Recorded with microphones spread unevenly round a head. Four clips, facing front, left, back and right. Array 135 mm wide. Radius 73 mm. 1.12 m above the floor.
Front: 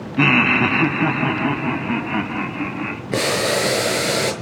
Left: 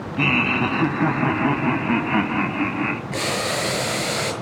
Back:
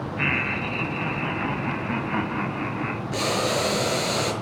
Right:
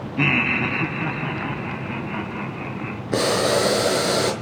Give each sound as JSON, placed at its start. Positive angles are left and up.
{"t": 0.2, "sound": "laughter", "azimuth_deg": -5, "distance_m": 0.9}
{"t": 3.1, "sound": "boiling", "azimuth_deg": -45, "distance_m": 5.5}